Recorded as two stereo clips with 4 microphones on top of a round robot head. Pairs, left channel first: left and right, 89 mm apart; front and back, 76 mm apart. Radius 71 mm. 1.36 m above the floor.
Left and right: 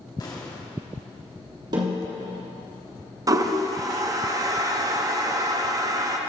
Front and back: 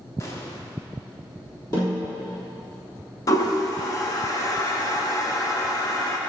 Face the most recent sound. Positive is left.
turn(degrees=-45)